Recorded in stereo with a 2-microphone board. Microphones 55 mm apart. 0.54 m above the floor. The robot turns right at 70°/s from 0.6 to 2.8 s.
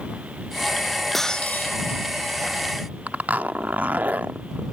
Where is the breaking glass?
Straight ahead; by 1.8 s 45° left.